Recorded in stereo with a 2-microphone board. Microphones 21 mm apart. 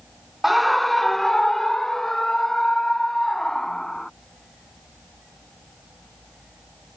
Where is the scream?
5° right (ahead or behind); by 4.1 s 25° left (ahead or behind).